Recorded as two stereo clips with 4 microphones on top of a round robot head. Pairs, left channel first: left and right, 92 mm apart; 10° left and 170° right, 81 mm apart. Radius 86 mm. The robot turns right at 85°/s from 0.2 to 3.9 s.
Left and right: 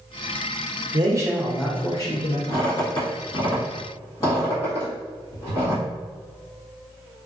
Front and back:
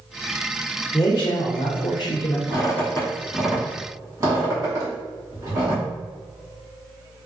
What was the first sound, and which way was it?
A man speaking, 55° right.